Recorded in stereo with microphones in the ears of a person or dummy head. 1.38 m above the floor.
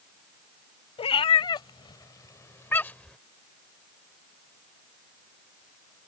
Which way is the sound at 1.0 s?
30° left (ahead or behind).